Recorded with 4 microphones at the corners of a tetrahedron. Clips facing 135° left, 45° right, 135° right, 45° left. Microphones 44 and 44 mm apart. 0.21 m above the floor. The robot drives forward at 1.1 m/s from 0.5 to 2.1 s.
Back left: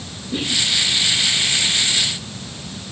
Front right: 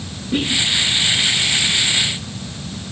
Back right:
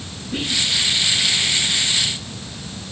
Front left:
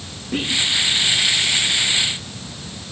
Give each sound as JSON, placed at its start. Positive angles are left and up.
{"t": 0.3, "sound": "whispering", "azimuth_deg": -10, "distance_m": 4.5}